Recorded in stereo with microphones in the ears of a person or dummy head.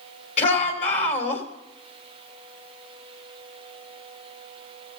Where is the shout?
40° left (ahead or behind), 3 m.